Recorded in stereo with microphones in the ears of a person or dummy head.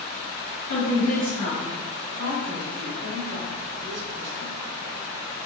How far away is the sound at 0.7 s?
About 1.8 m.